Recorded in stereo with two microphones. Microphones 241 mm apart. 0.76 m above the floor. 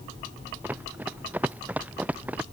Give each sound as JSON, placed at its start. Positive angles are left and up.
{"t": 0.6, "sound": "running footsteps", "side_deg": -5}